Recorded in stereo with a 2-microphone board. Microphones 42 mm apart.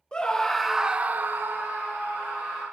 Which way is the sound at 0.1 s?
20° left (ahead or behind).